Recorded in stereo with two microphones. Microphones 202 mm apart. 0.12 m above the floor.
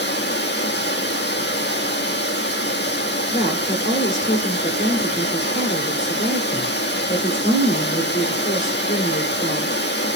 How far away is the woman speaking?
About 1.5 m.